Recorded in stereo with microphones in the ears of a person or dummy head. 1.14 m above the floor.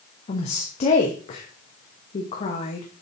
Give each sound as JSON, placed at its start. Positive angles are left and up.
{"t": 0.3, "sound": "a woman speaking", "side_deg": 40, "distance_m": 1.0}